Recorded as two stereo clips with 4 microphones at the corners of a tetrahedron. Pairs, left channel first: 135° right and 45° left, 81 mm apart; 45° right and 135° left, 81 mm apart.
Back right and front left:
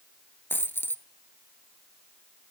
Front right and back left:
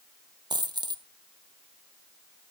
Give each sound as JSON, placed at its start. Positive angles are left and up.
{"t": 0.5, "sound": "a dropped coin", "azimuth_deg": 160, "distance_m": 1.1}